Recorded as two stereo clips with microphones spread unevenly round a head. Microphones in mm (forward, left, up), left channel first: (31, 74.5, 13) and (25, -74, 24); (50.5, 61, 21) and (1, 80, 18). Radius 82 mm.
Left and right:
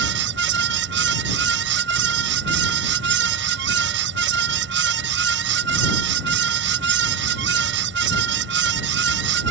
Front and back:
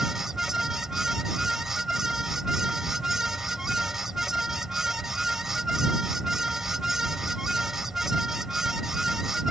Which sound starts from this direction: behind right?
A fan, at 0.0 s.